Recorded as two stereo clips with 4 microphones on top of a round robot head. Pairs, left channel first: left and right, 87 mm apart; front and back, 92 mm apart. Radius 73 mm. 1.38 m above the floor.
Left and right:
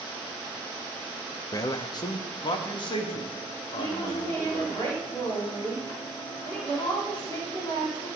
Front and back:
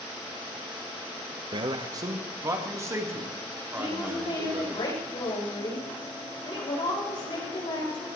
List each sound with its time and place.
1.5 s a man speaking: 140° left, 1.0 m; by 4.7 s 115° left, 4 m
3.7 s a woman speaking: 30° left, 6.5 m